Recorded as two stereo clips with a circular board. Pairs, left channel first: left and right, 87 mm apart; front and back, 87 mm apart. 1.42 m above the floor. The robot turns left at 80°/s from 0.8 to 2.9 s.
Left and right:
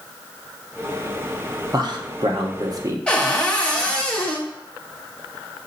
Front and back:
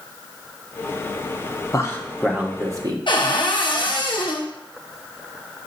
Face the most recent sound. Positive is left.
turn(degrees=10)